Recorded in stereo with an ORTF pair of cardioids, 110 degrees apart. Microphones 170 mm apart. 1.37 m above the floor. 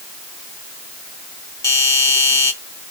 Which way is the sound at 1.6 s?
20° left.